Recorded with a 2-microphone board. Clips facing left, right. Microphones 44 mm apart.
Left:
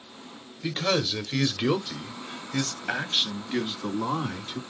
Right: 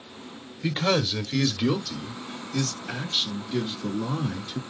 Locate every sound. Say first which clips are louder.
0.6 s a man speaking: right 2 dB; 10° right (ahead or behind), 0.9 m; by 4.6 s 50° left (ahead or behind), 2 m